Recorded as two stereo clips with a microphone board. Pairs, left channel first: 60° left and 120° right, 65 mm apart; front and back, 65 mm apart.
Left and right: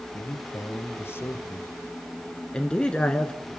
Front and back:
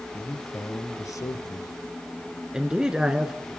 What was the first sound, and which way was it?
A man speaking, 45° left.